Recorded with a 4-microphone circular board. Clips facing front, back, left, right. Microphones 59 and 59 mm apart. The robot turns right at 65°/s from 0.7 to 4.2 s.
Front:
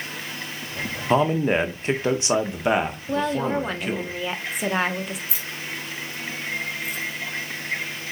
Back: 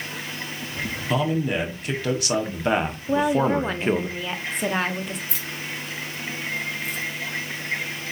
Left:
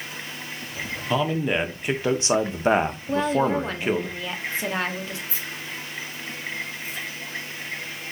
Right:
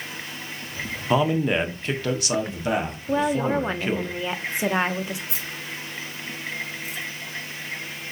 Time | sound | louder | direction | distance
1.1 | a man speaking | front 4 dB, right 3 dB | 25° right | 0.7 m
3.1 | a woman speaking | back 5 dB, right 1 dB | 150° right | 0.6 m
5.3 | keys jangling | even, even | 85° right | 2 m